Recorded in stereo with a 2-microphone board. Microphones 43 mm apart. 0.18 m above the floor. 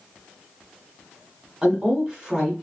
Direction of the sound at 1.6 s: 25° right (ahead or behind).